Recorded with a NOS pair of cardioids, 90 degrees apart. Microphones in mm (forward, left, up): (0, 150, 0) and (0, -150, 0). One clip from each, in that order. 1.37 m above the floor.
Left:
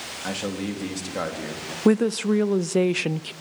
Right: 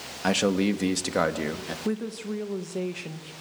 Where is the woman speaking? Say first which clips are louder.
Left 14 dB; 60° left, 0.8 m.